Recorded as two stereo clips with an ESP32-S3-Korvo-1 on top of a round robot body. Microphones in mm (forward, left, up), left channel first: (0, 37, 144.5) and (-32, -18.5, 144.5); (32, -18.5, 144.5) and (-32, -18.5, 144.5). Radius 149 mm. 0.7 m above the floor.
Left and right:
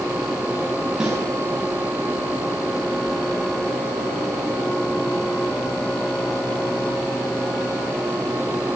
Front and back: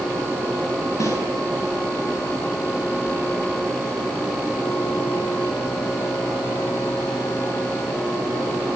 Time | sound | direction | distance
1.0 | a snare drum | 40° right | 10 m